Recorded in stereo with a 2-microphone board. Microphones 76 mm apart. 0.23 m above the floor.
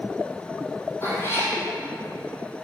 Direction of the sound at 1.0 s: 35° left (ahead or behind).